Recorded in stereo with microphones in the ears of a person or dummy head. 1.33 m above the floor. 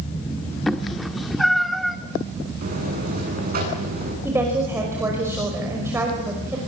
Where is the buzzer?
50° right (ahead or behind), 9 m.